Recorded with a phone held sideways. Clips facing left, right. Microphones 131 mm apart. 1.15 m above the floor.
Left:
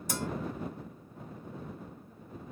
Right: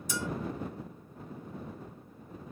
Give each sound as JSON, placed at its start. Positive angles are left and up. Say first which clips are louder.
{"t": 0.1, "sound": "a bell", "louder": "even", "side_deg": 55}